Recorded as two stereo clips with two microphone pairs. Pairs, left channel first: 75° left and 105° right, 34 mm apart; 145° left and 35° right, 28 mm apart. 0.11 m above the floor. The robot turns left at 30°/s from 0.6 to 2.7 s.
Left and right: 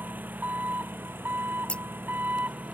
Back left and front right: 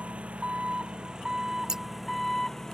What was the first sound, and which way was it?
An engine running, 80° right.